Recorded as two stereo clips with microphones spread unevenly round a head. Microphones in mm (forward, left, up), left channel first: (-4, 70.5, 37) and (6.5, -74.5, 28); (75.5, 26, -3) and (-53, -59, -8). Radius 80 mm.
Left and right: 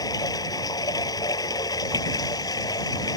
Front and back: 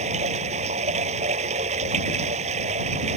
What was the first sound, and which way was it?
Running water, 160° left.